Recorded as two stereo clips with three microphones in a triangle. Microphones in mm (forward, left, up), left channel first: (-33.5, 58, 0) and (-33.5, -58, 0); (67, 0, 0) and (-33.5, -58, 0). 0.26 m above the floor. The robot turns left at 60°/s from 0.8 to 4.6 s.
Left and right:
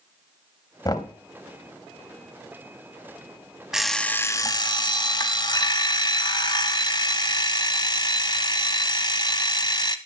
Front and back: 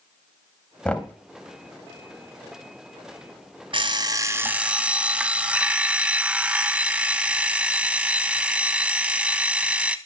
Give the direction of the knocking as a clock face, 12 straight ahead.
9 o'clock.